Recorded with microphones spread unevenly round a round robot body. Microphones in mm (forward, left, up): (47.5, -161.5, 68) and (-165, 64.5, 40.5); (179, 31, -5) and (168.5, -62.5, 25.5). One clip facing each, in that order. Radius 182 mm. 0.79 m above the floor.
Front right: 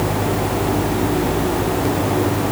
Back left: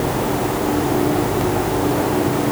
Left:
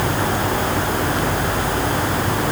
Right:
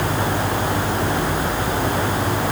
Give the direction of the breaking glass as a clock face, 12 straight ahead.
I don't hear breaking glass.